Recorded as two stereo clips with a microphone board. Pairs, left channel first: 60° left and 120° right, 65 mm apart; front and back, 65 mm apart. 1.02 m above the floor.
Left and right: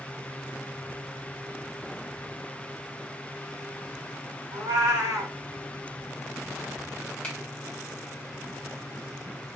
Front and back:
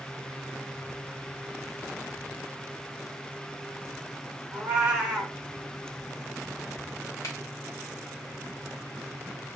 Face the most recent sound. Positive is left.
turn(degrees=-10)